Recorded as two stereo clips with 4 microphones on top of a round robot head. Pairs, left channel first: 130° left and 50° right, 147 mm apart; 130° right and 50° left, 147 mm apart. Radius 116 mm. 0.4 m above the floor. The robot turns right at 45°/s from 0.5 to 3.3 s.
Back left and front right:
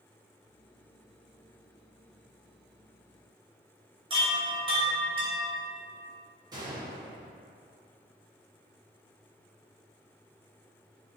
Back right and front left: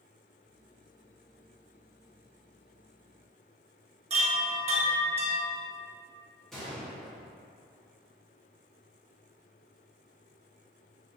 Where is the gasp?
I don't hear a gasp.